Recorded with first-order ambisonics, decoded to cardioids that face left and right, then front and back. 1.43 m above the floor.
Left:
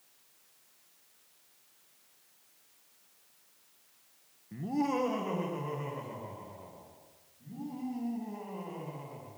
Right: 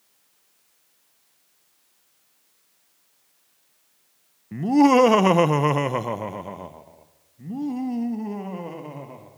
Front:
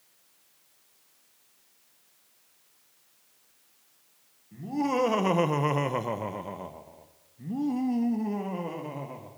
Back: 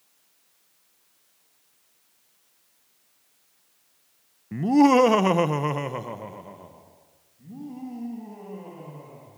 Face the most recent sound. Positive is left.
turn(degrees=-50)